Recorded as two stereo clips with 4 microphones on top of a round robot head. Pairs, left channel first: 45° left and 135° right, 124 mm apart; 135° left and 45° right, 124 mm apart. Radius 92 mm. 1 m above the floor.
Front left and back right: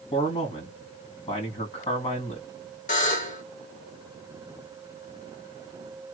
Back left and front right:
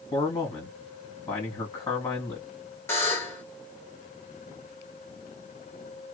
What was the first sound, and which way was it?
A man speaking, 80° left.